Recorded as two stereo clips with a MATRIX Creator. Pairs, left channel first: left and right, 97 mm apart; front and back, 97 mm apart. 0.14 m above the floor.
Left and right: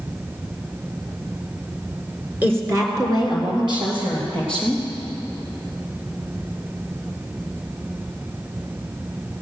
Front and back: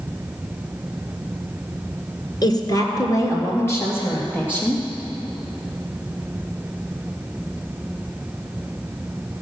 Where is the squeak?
No squeak in this recording.